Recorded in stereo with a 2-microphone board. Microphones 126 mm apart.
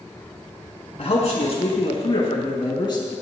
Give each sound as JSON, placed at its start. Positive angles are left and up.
{"t": 1.0, "sound": "a man speaking", "side_deg": 60, "distance_m": 2.5}